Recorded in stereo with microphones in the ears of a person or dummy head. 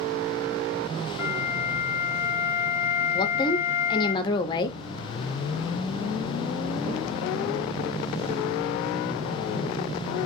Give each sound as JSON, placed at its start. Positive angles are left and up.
{"t": 1.2, "sound": "a flute", "side_deg": -15, "distance_m": 0.9}
{"t": 3.1, "sound": "a woman speaking", "side_deg": 25, "distance_m": 0.7}